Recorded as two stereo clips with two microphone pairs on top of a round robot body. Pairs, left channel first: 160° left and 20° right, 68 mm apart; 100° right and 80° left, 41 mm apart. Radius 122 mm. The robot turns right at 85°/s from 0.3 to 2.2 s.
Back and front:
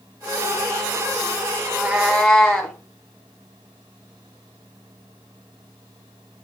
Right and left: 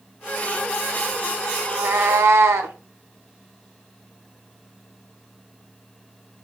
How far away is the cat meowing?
About 0.6 m.